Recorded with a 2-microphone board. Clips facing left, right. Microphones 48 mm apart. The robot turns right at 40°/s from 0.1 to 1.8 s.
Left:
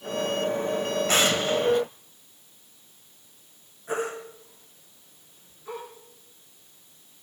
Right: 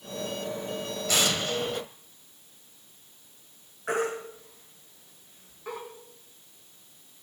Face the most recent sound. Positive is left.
turn(degrees=-70)  # may be behind; listen again after turning